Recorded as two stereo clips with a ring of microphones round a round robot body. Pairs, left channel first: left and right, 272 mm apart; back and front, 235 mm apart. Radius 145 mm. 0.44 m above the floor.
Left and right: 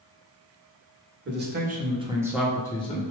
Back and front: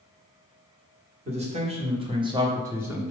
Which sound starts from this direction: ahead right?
A man speaking, at 1.2 s.